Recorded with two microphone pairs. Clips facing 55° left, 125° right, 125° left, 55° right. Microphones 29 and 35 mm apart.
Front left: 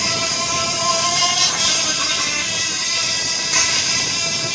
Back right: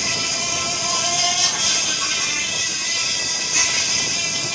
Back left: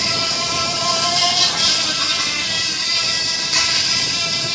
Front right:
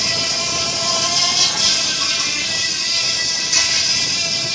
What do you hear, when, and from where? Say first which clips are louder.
0.0 s an insect: front left 2 dB, back left 1 dB; 65° left, 4 m